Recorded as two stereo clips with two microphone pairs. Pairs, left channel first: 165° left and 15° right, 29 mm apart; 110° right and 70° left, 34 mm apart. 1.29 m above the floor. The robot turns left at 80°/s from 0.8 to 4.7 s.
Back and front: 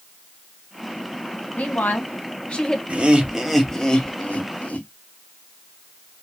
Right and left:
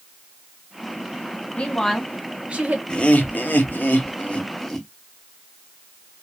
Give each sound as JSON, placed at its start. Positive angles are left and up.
{"t": 1.6, "sound": "a woman speaking", "azimuth_deg": -165, "distance_m": 0.9}
{"t": 2.9, "sound": "laughter", "azimuth_deg": -45, "distance_m": 0.8}